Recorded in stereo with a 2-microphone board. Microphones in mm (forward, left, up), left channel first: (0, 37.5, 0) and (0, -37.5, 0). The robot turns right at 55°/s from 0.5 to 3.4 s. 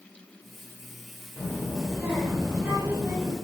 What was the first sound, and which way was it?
A child speaking, 5° right (ahead or behind).